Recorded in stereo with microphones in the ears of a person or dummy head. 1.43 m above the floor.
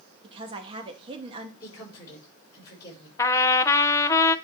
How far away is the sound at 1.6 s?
About 6.5 m.